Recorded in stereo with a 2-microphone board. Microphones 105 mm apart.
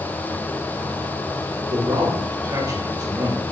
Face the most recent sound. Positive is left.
turn(degrees=-35)  # may be behind; listen again after turning